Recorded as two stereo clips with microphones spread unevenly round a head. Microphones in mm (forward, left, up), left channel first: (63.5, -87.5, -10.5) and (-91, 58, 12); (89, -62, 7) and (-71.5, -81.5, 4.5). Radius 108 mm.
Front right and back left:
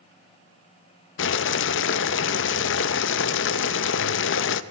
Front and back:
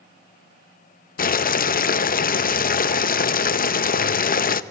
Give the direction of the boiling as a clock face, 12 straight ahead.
1 o'clock.